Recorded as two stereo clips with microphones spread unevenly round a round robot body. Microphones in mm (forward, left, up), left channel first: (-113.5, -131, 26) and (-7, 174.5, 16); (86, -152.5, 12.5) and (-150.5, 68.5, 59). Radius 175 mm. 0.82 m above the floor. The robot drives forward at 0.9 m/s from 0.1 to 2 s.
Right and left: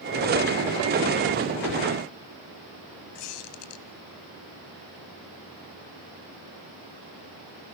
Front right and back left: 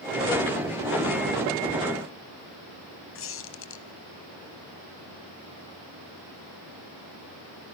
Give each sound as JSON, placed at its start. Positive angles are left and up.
{"t": 3.1, "sound": "a squeak", "azimuth_deg": -95, "distance_m": 1.8}